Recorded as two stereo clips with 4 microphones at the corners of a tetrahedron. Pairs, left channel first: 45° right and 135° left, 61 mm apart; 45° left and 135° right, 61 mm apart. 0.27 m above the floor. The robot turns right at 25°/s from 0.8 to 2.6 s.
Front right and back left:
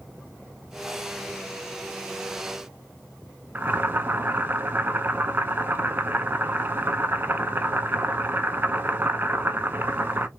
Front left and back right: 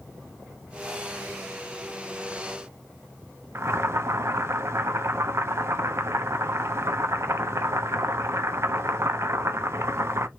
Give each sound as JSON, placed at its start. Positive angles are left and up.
{"t": 3.5, "sound": "boiling", "azimuth_deg": -175, "distance_m": 0.7}